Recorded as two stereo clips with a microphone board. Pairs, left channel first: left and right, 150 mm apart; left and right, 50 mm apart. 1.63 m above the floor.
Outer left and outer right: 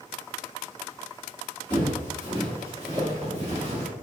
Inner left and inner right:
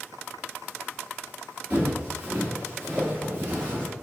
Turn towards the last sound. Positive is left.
turn(degrees=-40)  # may be behind; listen again after turning